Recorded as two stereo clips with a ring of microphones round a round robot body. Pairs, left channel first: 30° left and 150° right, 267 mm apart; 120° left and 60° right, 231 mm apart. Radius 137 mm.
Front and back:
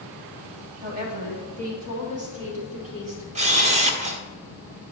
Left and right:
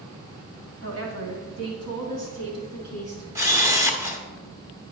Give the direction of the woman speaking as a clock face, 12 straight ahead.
3 o'clock.